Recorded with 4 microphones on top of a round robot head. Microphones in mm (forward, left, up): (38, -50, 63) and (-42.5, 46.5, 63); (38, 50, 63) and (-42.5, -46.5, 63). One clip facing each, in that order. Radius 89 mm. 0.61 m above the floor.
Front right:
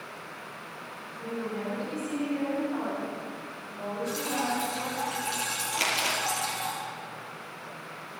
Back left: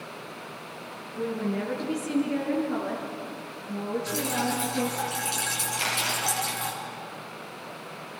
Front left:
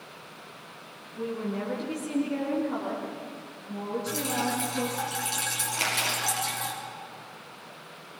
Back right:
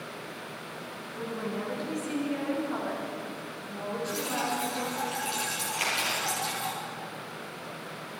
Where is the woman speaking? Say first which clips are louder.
Back left 5 dB, front left 3 dB; 130° left, 6.5 m; by 5.0 s 115° left, 10 m.